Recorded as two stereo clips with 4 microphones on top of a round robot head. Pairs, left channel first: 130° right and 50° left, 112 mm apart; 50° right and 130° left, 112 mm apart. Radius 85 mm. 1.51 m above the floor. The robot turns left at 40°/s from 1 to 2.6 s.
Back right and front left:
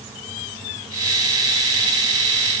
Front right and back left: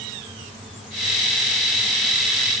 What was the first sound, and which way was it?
Only background noise.